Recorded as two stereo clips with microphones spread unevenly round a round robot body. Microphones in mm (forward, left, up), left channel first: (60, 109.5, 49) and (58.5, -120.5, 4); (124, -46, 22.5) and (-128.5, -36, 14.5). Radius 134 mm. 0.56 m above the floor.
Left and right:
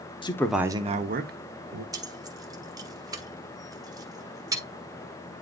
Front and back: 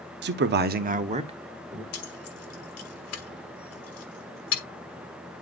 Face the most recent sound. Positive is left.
turn(degrees=-20)